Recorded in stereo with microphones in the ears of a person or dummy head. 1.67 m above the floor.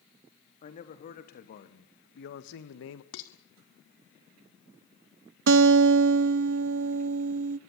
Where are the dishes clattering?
70° left (ahead or behind), 2.5 m.